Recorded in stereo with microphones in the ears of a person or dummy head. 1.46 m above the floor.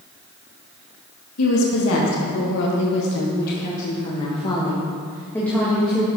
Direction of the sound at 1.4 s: 85° left.